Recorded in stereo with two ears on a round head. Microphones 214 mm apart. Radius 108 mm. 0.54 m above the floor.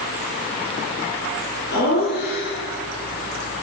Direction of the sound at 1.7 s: 45° left (ahead or behind).